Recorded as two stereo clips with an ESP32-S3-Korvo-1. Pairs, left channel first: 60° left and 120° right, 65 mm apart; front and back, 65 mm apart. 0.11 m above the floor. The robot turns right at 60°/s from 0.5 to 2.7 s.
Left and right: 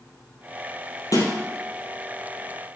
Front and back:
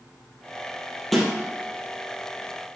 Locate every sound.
1.1 s a snare drum: 85° left, 3.5 m; by 1.3 s 95° left, 3.5 m